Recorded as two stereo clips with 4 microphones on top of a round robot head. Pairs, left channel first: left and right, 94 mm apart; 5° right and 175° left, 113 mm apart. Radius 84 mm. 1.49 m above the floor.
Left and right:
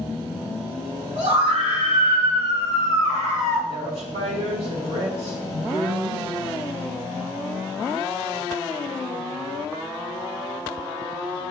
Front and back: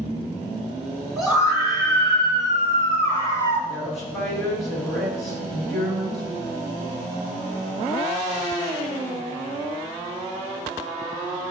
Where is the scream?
95° right, 4 m; by 3.6 s 70° right, 3.5 m.